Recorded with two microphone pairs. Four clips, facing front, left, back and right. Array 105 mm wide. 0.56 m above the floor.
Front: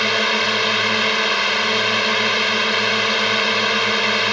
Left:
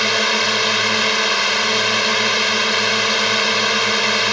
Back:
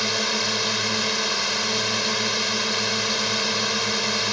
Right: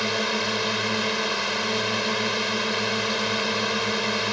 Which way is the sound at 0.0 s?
50° left.